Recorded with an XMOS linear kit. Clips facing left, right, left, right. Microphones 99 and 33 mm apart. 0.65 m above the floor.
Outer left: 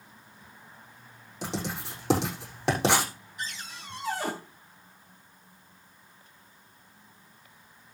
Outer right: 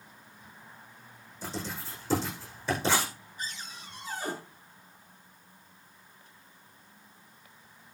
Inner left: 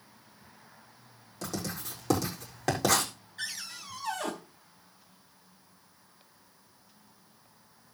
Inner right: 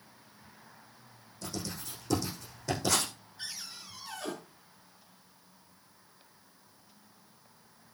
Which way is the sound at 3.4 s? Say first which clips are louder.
Outer left 2 dB, inner left 5 dB; 80° left.